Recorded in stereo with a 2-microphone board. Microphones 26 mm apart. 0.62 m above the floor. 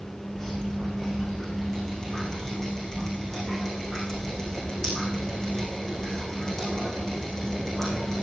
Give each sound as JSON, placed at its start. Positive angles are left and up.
{"t": 0.3, "sound": "dripping", "side_deg": 20, "distance_m": 10.0}